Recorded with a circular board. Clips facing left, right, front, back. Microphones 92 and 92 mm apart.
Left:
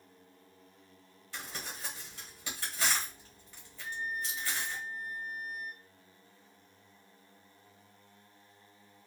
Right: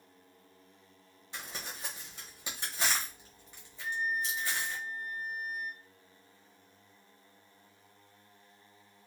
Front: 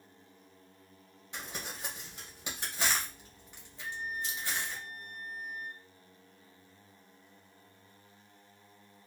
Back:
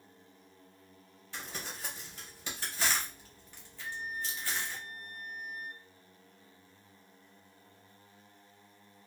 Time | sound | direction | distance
1.3 | crumpling | 50° right | 1.0 m
3.8 | a flute | 95° right | 1.2 m